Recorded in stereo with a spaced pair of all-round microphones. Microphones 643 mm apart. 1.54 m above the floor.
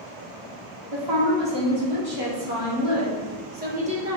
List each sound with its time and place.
0.9 s a woman speaking: 45° right (ahead or behind), 2.5 m; by 4.2 s 5° right (ahead or behind), 1.8 m